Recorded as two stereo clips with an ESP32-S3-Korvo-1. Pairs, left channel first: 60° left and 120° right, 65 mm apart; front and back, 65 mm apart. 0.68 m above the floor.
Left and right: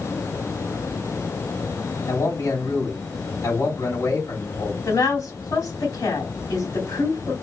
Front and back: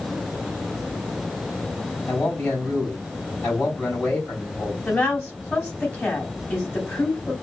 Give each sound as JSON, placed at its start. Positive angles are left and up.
{"t": 2.1, "sound": "a man speaking", "azimuth_deg": 75, "distance_m": 3.5}
{"t": 4.8, "sound": "a woman speaking", "azimuth_deg": 65, "distance_m": 3.0}